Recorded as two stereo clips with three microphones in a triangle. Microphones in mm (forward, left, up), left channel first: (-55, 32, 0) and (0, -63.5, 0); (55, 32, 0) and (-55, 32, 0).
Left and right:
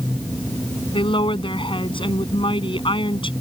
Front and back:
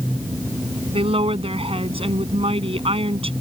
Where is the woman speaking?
155° left.